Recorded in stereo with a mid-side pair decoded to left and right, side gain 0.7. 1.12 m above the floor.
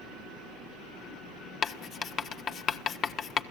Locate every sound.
1.6 s writing: 40° left, 1.3 m